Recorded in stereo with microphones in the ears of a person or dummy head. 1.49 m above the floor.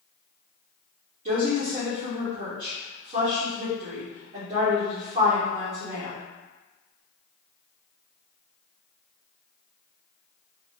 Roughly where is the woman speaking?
Right.